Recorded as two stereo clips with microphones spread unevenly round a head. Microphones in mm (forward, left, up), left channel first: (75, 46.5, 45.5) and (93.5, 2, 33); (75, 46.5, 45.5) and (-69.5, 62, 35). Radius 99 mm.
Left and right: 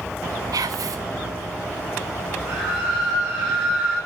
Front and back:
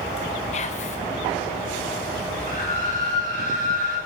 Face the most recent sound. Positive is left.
turn(degrees=-135)